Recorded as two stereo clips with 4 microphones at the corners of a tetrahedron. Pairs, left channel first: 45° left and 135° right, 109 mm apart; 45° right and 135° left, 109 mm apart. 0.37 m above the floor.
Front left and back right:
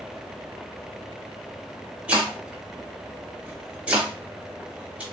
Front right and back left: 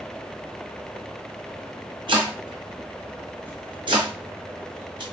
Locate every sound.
2.1 s chopping: 150° left, 1.4 m